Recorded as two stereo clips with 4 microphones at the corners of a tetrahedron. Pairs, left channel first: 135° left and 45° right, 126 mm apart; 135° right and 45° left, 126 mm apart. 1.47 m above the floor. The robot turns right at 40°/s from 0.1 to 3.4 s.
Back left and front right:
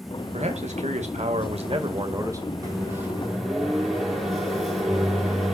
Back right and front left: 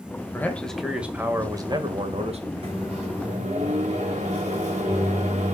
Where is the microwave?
15° left, 3.5 m; by 5.5 s 45° left, 3.5 m.